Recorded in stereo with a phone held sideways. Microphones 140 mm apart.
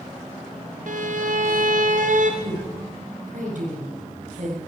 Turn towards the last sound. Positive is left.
turn(degrees=-70)  # may be behind; listen again after turning